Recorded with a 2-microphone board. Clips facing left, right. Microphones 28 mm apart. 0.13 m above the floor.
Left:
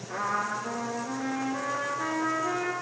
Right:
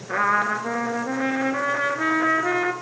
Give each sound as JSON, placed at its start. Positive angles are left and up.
{"t": 0.1, "sound": "a trumpet", "side_deg": -45, "distance_m": 2.0}